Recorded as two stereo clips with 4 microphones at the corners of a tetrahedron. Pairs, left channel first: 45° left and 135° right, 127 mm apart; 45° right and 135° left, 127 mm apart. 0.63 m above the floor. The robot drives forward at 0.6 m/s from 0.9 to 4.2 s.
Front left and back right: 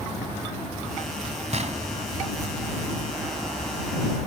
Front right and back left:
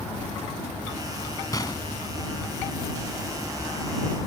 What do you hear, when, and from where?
1.5 s a gunshot: 105° right; by 1.9 s 110° right